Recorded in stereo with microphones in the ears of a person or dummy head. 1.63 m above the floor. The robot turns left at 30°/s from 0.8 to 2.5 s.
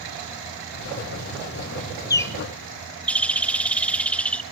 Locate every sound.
2.1 s a bird: 20° left (ahead or behind), 0.6 m; by 4.4 s 5° left (ahead or behind), 0.6 m